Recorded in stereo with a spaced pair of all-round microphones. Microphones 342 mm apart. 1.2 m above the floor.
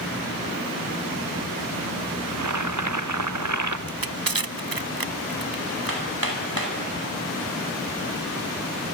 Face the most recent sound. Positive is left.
turn(degrees=-90)